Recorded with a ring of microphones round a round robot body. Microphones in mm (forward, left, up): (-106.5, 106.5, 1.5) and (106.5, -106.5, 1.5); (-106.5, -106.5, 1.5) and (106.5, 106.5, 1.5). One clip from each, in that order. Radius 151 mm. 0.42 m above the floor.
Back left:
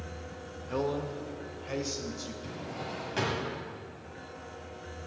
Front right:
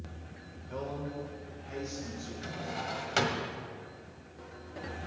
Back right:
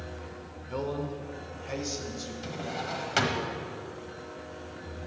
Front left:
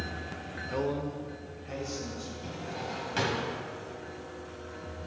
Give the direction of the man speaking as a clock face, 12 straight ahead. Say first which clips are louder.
Back left 6 dB, front left 1 dB; 8 o'clock.